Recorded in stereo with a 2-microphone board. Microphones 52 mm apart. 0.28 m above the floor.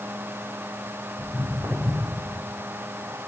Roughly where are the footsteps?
Right.